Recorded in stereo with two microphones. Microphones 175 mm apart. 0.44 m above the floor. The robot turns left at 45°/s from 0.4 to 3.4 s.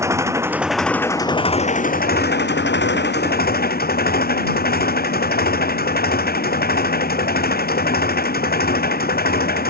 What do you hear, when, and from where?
0.0 s an engine running: 165° right; by 9.7 s 60° left